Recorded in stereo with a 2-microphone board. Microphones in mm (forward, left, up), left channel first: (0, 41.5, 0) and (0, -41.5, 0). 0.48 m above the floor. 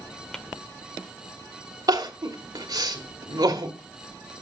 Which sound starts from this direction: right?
Crying, at 1.9 s.